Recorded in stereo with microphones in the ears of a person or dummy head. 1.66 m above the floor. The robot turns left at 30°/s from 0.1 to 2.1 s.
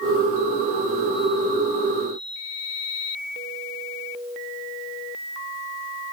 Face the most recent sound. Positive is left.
No sound to turn to.